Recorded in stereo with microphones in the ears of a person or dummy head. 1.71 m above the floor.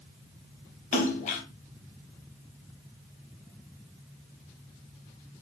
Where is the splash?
40° left (ahead or behind), 1.4 m.